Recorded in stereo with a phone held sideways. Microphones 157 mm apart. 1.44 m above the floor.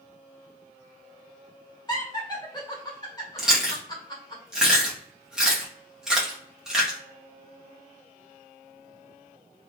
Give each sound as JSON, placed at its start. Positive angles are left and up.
{"t": 1.9, "sound": "laughter", "side_deg": 25, "distance_m": 1.4}
{"t": 3.4, "sound": "chewing", "side_deg": -5, "distance_m": 0.9}